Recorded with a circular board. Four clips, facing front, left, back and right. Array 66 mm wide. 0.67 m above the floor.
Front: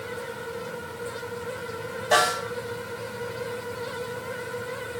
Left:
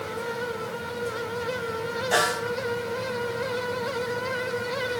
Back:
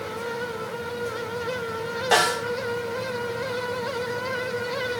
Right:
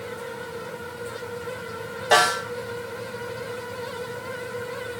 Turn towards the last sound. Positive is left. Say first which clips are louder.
# right 6 dB, even
turn(degrees=-120)